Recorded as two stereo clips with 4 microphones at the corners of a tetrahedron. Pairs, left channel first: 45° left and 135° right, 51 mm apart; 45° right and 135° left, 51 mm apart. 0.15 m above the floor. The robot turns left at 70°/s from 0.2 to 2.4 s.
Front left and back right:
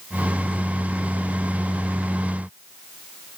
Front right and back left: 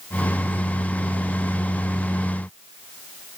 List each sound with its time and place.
Only background noise.